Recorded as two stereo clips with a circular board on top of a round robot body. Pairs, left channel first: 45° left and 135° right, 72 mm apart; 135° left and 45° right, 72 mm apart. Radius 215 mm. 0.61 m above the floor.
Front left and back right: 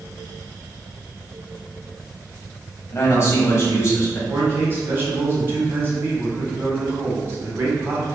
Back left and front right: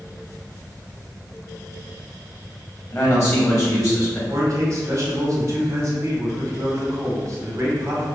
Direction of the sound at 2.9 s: 90° left.